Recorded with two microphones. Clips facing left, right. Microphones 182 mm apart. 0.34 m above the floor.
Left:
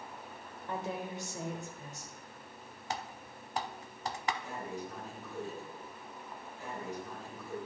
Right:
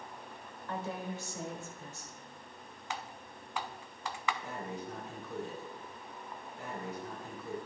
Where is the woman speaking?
20° left (ahead or behind), 1.3 m.